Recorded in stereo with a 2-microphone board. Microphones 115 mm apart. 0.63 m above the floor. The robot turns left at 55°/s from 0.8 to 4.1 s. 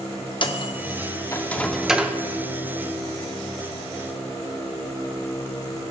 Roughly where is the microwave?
Left.